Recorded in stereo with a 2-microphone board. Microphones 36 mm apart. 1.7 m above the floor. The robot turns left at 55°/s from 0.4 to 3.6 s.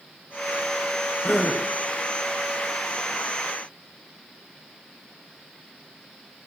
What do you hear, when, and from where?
1.2 s a gasp: 60° left (ahead or behind), 4 m; by 1.6 s 70° left (ahead or behind), 4 m